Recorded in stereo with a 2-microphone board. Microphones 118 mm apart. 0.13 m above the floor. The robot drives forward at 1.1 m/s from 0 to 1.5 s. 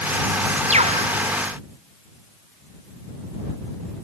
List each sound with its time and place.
0.7 s a bird: 70° right (ahead or behind)